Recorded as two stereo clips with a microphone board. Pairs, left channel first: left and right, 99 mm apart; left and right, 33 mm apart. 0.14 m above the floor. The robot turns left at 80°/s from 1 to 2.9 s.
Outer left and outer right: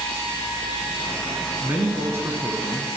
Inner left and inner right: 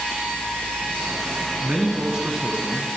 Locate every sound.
1.6 s a man speaking: 15° right (ahead or behind), 1.1 m